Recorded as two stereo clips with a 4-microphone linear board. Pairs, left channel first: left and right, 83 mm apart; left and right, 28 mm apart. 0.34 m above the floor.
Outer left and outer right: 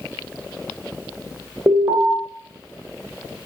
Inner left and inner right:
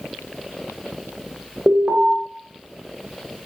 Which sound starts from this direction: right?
An alarm, at 1.7 s.